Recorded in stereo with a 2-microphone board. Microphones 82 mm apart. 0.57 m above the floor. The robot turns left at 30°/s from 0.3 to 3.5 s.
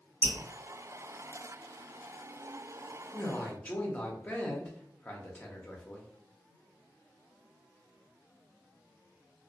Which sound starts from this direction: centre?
Dripping, at 0.2 s.